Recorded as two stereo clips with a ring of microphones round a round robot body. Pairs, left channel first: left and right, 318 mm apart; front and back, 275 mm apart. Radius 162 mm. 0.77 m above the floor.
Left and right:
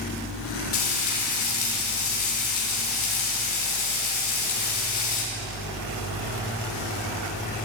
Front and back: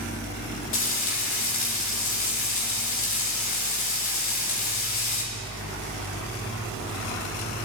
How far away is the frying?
About 5.5 m.